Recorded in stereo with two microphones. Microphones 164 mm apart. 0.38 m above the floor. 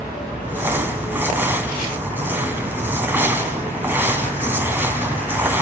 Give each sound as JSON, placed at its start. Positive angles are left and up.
{"t": 0.4, "sound": "crumpling", "side_deg": -10, "distance_m": 2.5}